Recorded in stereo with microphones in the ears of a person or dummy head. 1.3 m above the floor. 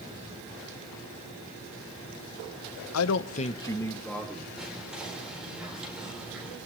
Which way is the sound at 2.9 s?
80° left.